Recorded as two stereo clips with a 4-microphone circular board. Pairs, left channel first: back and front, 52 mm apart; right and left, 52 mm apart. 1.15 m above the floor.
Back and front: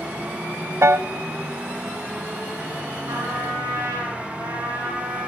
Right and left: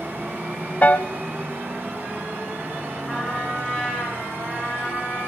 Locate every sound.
0.8 s a piano: 30° right, 0.6 m
3.1 s a trumpet: 10° right, 6.5 m